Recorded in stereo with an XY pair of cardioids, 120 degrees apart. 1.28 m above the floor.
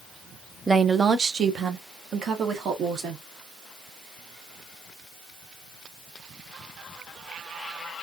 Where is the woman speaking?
15° right, 0.5 m; by 3.2 s 60° right, 1.7 m.